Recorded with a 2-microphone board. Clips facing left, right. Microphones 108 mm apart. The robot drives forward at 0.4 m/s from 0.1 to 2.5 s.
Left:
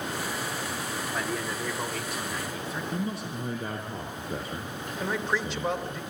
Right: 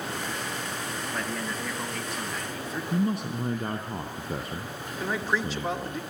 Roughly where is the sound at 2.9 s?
Right.